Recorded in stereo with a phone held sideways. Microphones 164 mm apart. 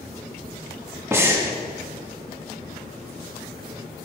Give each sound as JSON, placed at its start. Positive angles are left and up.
{"t": 1.1, "sound": "breathing", "side_deg": -15, "distance_m": 2.0}